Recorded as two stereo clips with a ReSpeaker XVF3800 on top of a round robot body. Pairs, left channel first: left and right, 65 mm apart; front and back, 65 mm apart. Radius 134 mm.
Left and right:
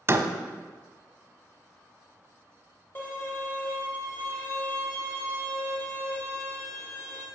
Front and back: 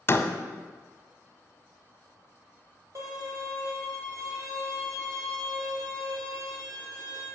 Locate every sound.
0.1 s a door slam: 50° right, 1.0 m
3.0 s a violin: 150° left, 3 m